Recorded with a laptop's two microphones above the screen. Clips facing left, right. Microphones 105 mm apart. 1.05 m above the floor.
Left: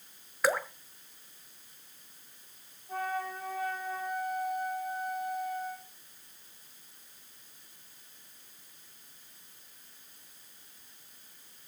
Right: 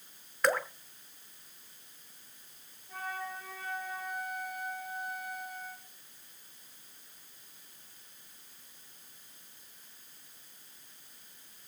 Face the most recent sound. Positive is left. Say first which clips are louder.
# left 5 dB
turn(degrees=45)  # may be behind; listen again after turning